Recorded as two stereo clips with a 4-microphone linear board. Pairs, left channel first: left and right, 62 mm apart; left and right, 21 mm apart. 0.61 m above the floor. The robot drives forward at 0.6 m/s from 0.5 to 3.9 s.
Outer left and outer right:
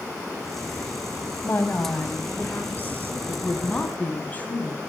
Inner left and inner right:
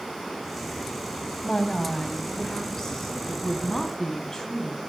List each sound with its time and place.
1.4 s a woman speaking: 35° left (ahead or behind), 4 m; by 4.8 s 25° left (ahead or behind), 5 m